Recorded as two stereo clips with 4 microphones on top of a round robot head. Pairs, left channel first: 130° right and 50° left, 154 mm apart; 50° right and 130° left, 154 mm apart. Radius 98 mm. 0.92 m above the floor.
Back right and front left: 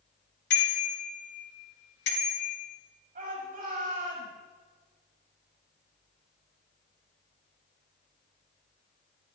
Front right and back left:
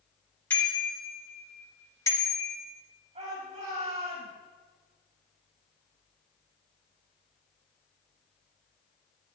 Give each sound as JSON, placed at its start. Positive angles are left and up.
{"t": 0.5, "sound": "a bicycle bell", "azimuth_deg": -125, "distance_m": 4.0}
{"t": 3.1, "sound": "a shout", "azimuth_deg": 80, "distance_m": 5.5}